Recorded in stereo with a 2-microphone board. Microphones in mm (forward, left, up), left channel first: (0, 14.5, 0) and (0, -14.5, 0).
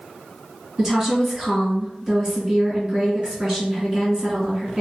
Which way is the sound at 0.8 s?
20° right (ahead or behind).